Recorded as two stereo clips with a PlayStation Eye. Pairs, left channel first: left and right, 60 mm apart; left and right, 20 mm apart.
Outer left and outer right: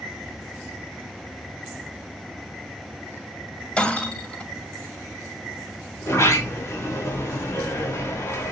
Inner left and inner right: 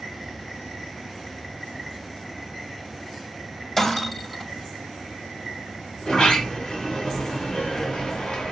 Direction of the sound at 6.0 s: 50° left (ahead or behind).